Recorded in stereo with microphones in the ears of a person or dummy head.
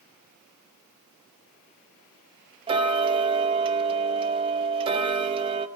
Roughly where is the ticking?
Right.